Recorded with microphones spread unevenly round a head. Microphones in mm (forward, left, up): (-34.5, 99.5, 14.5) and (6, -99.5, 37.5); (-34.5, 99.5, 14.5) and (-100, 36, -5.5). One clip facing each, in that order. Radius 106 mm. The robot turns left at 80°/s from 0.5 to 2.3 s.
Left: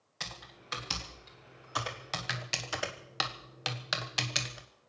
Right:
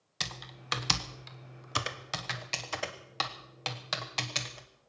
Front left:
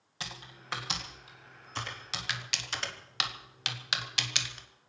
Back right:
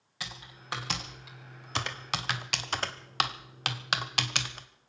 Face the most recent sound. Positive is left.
turn(degrees=-175)